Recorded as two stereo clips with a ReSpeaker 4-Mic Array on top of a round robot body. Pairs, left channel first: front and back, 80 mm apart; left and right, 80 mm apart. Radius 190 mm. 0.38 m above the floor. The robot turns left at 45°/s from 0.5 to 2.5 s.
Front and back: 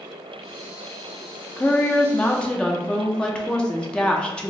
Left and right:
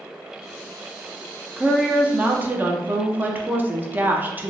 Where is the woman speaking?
20° right, 0.8 m; by 4.5 s 60° right, 0.8 m.